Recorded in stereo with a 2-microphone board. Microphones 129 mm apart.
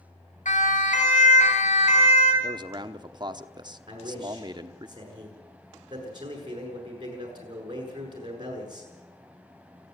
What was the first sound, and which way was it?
A siren, 80° left.